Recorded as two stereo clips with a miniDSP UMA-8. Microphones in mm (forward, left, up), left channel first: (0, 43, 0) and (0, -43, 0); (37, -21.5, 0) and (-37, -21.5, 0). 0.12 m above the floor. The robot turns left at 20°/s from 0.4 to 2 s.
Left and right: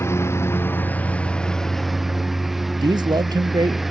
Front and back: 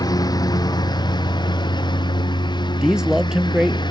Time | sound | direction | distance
0.0 | a lawn mower | 30° left | ?
2.8 | a man speaking | 100° right | ?